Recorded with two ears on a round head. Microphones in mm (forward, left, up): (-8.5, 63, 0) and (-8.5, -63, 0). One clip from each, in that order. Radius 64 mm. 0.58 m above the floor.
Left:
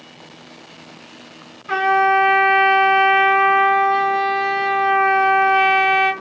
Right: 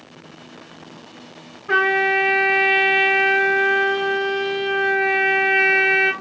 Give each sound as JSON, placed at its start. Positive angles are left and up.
{"t": 1.7, "sound": "a trumpet", "side_deg": 35, "distance_m": 3.0}